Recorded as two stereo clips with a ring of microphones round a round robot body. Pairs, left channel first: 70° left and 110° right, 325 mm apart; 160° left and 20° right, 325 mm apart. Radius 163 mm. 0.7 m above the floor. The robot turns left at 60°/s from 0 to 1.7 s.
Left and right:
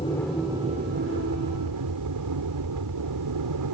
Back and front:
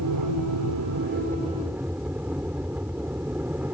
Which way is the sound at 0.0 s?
5° right.